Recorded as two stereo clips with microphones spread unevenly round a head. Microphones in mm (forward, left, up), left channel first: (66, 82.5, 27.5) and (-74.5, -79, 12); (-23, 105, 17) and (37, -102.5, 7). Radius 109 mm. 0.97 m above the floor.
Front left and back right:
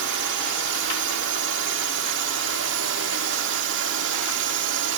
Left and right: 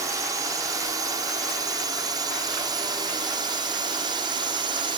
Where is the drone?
150° right; by 5.0 s 140° right.